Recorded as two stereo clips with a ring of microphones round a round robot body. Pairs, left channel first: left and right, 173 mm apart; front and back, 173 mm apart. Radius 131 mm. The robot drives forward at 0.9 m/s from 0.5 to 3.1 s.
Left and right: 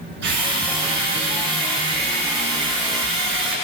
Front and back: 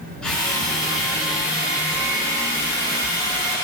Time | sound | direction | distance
0.2 | a drill | 85° right | 7 m